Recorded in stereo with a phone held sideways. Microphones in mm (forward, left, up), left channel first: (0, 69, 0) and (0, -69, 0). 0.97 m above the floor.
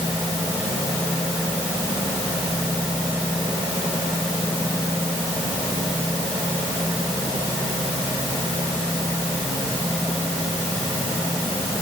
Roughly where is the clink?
I don't hear a clink.